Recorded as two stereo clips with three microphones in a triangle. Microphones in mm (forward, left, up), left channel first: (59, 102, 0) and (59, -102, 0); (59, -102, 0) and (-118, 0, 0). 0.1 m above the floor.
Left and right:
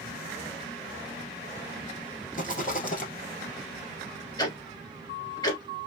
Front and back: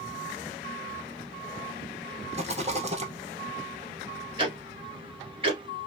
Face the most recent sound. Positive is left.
turn(degrees=130)